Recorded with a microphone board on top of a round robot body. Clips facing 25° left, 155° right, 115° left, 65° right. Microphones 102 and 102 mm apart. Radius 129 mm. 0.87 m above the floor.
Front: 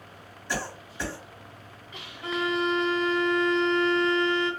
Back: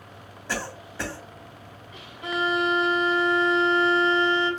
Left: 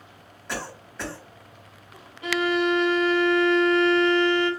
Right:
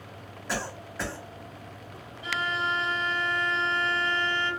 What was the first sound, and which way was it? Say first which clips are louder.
A cough: back 1 dB, right 1 dB; 155° right.